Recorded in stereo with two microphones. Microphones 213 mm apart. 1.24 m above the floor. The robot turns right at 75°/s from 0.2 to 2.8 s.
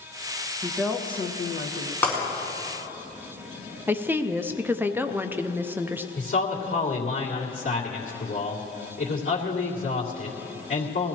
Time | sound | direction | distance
0.6 | a woman speaking | 15° right | 1.4 m
2.0 | breaking glass | 10° left (ahead or behind) | 5 m
3.9 | a woman speaking | 10° right (ahead or behind) | 0.5 m
6.2 | a man speaking | 85° left | 2.5 m